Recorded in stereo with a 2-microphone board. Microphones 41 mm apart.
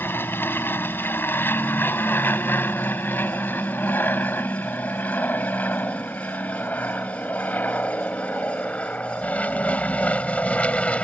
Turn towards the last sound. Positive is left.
turn(degrees=30)  # may be behind; listen again after turning